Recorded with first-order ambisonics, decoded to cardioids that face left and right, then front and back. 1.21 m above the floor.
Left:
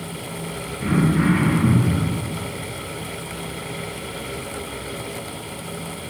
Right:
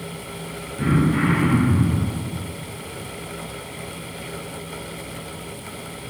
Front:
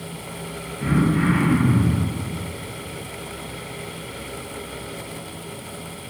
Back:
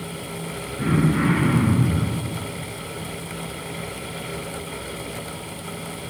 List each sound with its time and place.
0.8 s throat clearing: 125° right, 1.8 m